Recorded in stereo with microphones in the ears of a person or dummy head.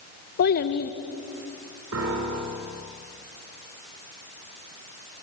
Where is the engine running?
No engine running in this recording.